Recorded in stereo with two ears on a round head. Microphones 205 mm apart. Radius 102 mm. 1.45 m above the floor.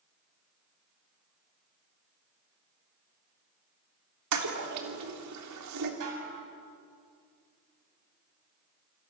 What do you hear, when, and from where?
4.3 s a toilet flushing: 85° right, 3.5 m
6.0 s dishes clattering: 70° right (ahead or behind), 7.5 m